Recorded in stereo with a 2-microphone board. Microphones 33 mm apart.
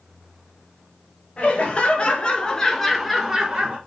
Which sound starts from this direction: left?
Laughter, at 1.4 s.